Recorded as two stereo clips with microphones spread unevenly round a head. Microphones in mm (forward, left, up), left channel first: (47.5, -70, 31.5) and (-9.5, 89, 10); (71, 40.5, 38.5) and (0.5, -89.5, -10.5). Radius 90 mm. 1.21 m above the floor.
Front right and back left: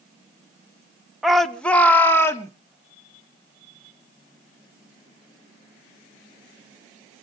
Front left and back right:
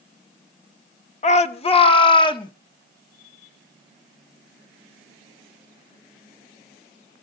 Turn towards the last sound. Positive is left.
turn(degrees=0)